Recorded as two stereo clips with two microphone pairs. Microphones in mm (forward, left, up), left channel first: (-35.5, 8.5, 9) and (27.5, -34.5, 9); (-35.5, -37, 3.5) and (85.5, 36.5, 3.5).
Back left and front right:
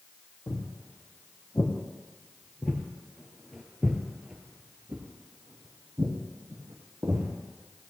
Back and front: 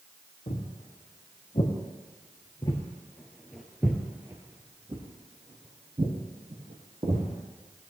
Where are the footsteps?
175° right, 3 m; by 7.3 s 5° left, 3 m.